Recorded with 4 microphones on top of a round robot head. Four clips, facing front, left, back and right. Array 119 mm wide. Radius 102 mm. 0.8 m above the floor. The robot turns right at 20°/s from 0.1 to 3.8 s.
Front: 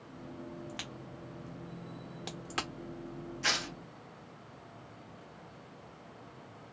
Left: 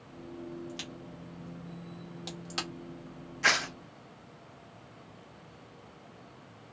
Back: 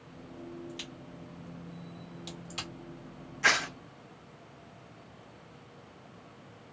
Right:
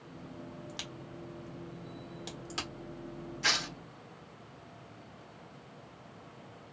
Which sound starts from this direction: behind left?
Tearing paper, at 3.4 s.